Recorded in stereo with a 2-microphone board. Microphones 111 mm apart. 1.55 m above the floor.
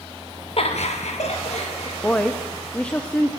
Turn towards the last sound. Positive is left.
turn(degrees=10)  # may be behind; listen again after turning